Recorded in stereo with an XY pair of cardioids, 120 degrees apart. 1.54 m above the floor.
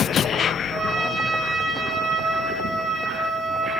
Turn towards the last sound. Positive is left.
turn(degrees=-55)